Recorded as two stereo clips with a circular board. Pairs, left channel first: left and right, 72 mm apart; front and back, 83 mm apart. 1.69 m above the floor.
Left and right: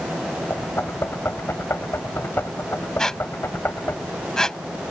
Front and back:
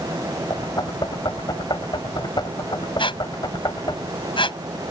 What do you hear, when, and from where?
0.5 s knocking: 35° left
3.0 s a squeak: 10° left